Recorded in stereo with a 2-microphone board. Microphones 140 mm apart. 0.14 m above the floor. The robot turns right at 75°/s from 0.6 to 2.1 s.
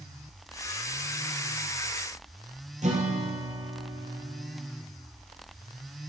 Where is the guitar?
55° right (ahead or behind), 2 m.